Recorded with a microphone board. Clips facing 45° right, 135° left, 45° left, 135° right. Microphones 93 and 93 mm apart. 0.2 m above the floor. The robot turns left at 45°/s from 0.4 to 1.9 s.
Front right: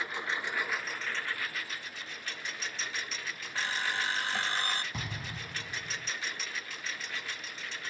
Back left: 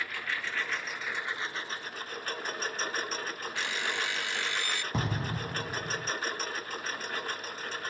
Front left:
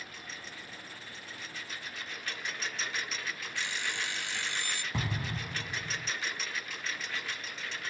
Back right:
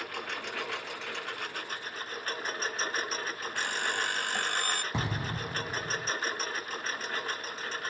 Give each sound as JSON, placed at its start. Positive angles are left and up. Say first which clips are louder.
{"t": 0.0, "sound": "a lawn mower", "louder": "front right 1 dB, back right 9 dB", "azimuth_deg": -115}
{"t": 3.5, "sound": "an alarm clock", "louder": "front right 2 dB, back right 5 dB", "azimuth_deg": -100}
{"t": 4.9, "sound": "an explosion", "louder": "back left 8 dB, back right 2 dB", "azimuth_deg": 165}